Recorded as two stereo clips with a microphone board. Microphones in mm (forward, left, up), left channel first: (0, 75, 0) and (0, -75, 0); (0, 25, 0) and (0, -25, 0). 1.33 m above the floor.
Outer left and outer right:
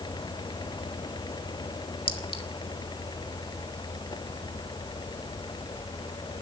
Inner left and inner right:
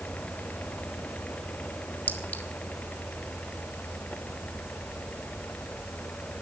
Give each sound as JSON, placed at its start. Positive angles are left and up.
{"t": 2.1, "sound": "a clink", "side_deg": 40, "distance_m": 1.4}